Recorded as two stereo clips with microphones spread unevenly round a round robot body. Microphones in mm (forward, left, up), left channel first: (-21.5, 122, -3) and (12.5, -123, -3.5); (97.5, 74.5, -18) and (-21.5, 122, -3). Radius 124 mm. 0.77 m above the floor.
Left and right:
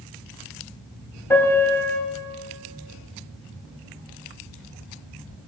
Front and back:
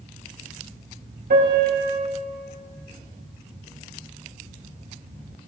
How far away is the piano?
About 5 m.